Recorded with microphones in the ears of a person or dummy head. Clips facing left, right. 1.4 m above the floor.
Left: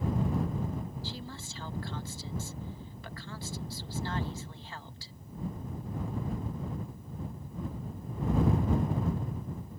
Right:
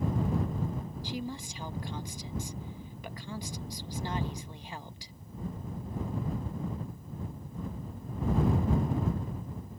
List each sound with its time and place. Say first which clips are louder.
1.0 s a woman speaking: right 5 dB; 20° right (ahead or behind)